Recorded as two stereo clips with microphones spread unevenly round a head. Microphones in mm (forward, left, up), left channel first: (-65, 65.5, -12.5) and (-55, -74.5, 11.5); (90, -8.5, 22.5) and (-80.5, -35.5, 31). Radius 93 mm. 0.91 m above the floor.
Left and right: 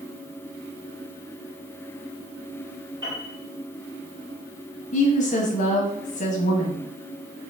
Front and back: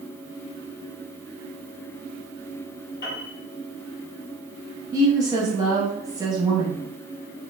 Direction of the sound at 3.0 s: 15° right.